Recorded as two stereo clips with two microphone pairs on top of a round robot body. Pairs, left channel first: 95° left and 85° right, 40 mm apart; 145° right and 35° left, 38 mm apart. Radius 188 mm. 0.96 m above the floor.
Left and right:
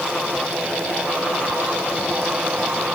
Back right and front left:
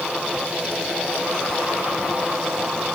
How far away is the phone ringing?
No phone ringing in this recording.